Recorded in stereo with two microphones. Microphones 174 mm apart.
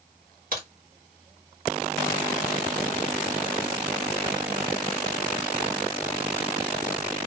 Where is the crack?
55° right (ahead or behind), 1.5 m.